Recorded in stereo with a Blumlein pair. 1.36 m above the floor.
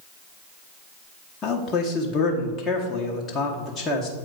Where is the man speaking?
20° left, 1.1 m.